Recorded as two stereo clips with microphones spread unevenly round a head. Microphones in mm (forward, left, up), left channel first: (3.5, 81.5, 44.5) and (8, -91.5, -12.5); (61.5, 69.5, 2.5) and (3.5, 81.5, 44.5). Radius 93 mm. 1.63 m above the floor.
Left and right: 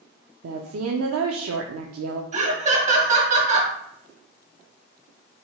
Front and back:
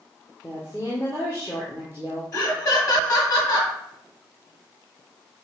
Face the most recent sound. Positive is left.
turn(degrees=-40)